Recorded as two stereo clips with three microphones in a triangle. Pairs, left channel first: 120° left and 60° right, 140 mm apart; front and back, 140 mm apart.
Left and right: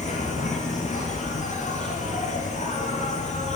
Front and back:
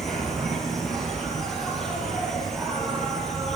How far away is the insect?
About 6 m.